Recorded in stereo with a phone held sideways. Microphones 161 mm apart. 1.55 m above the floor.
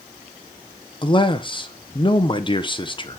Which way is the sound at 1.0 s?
30° left (ahead or behind).